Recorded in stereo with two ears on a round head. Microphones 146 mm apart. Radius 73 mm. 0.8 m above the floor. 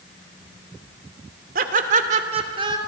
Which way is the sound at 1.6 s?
55° right (ahead or behind).